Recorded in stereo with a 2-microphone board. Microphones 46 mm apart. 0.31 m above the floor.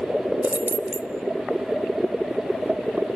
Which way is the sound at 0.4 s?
40° right (ahead or behind).